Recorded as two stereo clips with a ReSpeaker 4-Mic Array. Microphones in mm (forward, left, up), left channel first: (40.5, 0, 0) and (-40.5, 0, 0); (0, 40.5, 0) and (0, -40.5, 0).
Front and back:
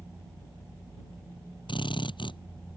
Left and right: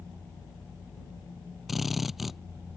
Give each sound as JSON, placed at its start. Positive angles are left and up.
{"t": 1.7, "sound": "a drill", "azimuth_deg": 0}